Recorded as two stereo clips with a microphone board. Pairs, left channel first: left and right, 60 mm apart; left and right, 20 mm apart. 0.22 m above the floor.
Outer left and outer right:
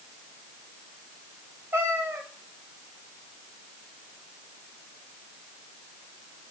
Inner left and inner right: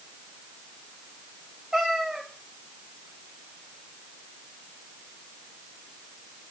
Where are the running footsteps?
No running footsteps in this recording.